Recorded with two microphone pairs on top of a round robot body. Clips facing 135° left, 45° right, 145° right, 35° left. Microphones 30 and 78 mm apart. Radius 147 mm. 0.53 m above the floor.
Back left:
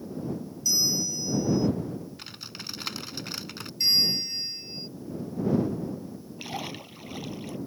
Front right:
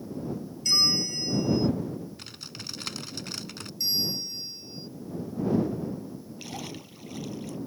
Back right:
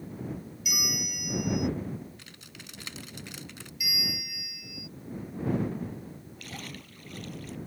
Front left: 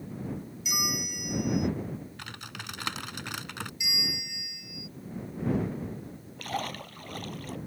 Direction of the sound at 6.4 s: 70° left.